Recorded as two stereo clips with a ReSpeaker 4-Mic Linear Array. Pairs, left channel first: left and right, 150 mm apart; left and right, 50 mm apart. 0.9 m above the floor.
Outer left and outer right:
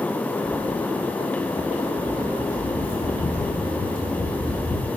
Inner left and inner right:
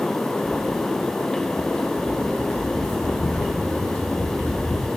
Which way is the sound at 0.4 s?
35° left (ahead or behind).